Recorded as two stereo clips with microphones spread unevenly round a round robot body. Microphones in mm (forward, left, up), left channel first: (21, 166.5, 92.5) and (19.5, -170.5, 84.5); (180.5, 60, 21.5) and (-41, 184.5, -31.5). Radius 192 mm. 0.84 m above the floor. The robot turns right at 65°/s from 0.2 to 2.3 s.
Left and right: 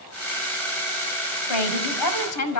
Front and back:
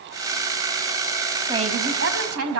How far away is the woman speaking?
About 5.5 m.